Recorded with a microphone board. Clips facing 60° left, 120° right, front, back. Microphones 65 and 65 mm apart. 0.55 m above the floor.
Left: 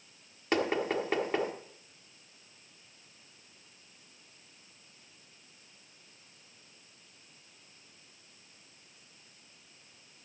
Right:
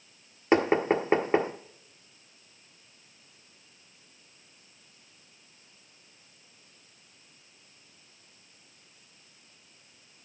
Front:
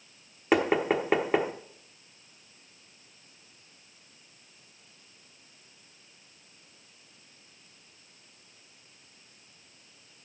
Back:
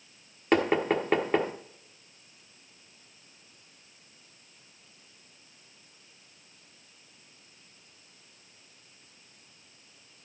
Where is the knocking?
80° right, 1.2 m.